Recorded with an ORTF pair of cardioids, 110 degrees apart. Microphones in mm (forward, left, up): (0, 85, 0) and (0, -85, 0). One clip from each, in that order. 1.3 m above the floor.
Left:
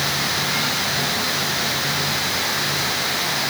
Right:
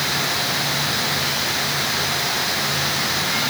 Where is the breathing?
No breathing in this recording.